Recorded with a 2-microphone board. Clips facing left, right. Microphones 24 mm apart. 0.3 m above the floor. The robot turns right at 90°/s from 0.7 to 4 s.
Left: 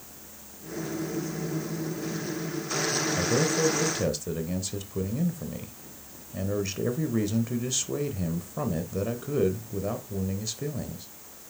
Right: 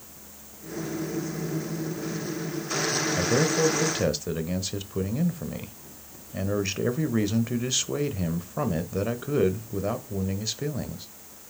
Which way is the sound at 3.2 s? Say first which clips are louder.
Right 3 dB; 15° right (ahead or behind).